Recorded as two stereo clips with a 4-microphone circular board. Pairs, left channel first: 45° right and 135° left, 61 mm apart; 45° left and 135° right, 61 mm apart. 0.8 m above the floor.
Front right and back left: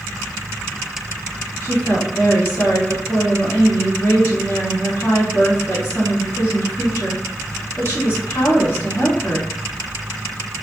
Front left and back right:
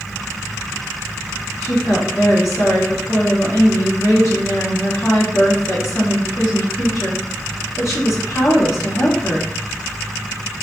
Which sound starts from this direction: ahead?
A woman speaking, at 1.6 s.